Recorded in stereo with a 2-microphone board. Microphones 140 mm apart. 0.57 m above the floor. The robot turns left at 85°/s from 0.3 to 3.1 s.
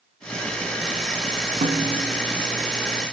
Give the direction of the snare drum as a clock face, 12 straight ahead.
3 o'clock.